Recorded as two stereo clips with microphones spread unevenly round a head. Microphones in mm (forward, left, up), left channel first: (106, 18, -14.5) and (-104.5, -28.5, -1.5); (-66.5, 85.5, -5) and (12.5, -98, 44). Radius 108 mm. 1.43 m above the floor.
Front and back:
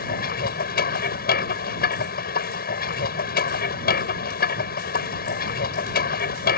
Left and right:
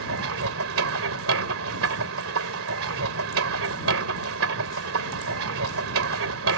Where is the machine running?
35° right.